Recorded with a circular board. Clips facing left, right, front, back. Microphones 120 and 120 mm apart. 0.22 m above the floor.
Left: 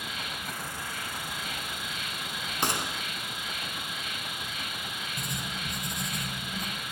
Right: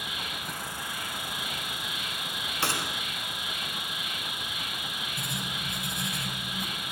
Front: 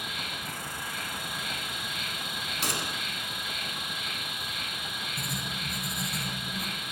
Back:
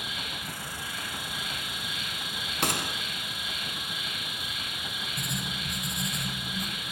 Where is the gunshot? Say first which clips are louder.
Left 1 dB, back 4 dB; 160° left, 0.7 m.